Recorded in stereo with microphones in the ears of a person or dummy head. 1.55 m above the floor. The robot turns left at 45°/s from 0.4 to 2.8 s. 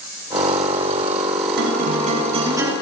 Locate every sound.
1.6 s a guitar: 110° right, 5 m; by 2.7 s 160° right, 5 m